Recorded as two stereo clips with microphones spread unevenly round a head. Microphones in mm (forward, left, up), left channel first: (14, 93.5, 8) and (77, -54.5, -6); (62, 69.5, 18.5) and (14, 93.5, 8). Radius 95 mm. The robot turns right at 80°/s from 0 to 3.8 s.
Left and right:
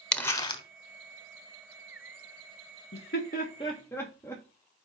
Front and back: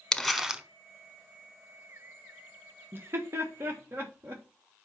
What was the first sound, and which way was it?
Crumpling, 35° left.